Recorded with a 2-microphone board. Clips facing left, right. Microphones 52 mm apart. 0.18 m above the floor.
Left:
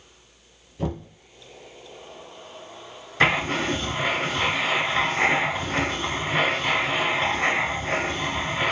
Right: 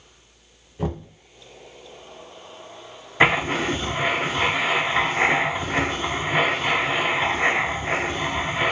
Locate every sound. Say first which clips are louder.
0.8 s knocking: right 1 dB; 15° right (ahead or behind), 0.7 m
3.2 s writing: right 2 dB; 15° right (ahead or behind), 0.5 m